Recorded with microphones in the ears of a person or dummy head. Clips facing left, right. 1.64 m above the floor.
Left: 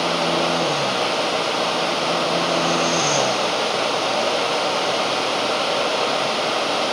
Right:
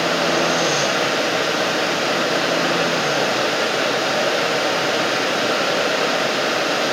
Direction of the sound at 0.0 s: 20° right (ahead or behind).